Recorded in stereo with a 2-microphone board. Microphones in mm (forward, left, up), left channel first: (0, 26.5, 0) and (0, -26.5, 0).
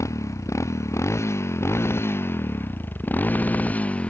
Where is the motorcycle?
70° left (ahead or behind); by 4.1 s 25° left (ahead or behind).